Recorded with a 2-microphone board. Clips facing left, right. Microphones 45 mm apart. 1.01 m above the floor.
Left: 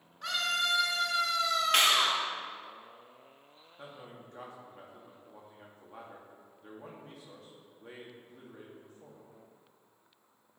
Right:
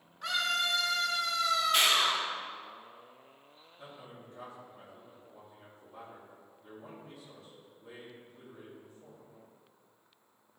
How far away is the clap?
About 1.7 m.